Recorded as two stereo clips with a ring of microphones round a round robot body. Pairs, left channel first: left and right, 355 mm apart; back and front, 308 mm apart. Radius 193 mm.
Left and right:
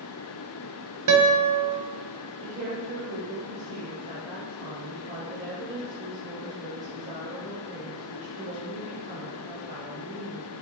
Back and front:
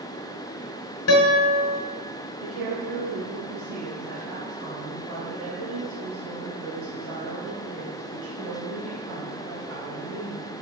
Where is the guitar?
130° right, 1.0 m.